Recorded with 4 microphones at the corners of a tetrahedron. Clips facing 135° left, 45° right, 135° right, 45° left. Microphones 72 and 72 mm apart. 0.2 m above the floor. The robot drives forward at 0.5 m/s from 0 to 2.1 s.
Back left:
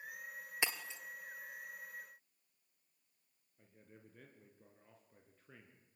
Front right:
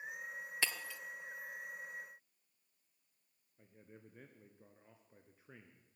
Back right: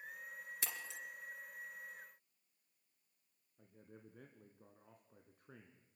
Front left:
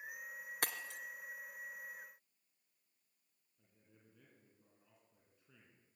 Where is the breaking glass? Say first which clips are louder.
Back left 1 dB, front left 7 dB; 65° left, 1.7 m; by 1.0 s 75° left, 1.6 m.